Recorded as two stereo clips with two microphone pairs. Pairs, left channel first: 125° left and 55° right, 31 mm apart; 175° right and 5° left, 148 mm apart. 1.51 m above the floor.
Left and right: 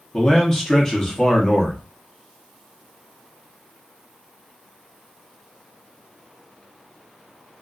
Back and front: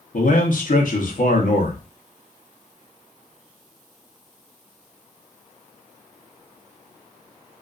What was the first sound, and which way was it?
A man speaking, 170° right.